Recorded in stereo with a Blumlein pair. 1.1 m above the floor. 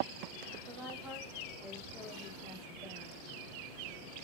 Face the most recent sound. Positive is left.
turn(degrees=-5)